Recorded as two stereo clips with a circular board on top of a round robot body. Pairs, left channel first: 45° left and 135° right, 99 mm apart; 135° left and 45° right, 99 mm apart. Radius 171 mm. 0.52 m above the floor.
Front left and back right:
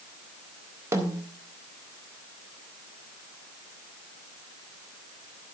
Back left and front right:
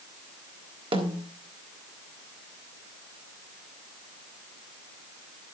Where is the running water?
No running water in this recording.